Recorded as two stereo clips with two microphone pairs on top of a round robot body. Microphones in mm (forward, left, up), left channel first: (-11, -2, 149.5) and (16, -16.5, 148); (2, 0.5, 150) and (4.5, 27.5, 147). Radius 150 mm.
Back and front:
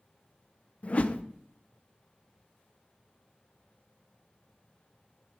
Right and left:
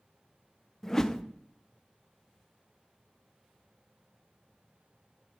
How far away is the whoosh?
About 0.7 m.